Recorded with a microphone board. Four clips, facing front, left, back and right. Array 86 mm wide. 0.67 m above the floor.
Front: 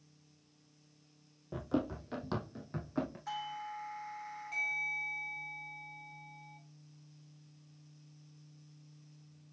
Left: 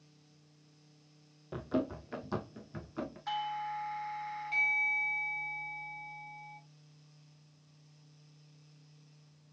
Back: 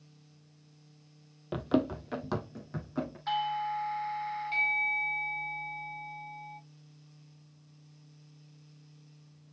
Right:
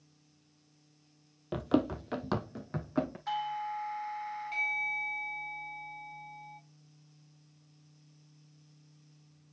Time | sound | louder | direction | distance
1.5 | running footsteps | right 5 dB, back 6 dB | 140° right | 1.2 m
3.3 | a doorbell | right 2 dB, back 10 dB | 175° right | 1.0 m